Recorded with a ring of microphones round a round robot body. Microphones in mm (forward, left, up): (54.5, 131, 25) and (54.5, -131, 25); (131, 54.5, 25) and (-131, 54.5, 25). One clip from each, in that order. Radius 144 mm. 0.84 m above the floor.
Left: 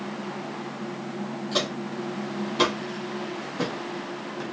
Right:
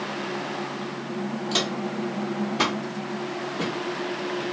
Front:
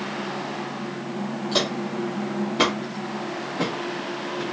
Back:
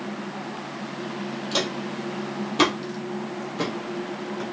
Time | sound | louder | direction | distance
1.5 | footsteps | right 1 dB, front 2 dB | 125° right | 0.9 m